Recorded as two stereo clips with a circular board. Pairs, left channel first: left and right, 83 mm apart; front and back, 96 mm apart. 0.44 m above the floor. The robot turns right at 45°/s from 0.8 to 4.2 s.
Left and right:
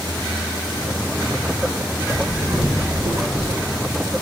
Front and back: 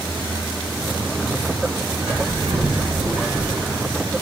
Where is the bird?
175° right, 4.5 m; by 3.6 s 105° right, 4.5 m.